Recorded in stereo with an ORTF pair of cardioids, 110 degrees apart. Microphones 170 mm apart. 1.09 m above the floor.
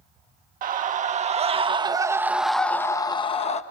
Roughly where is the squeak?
I don't hear a squeak.